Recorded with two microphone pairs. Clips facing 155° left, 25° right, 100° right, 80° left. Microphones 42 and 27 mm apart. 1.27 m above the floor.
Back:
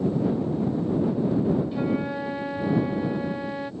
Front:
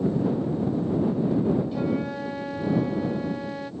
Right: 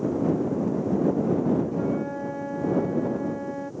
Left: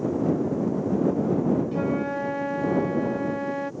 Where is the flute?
80° left.